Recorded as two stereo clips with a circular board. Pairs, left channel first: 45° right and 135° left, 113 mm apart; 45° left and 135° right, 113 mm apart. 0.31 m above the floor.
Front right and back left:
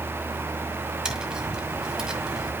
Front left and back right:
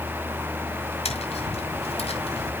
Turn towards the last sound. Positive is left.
turn(degrees=50)